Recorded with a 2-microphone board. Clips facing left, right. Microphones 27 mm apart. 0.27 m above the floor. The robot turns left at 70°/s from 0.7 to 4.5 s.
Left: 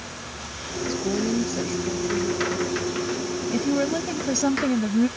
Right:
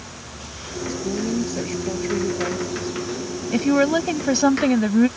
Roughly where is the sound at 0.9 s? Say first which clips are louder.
Even; ahead left.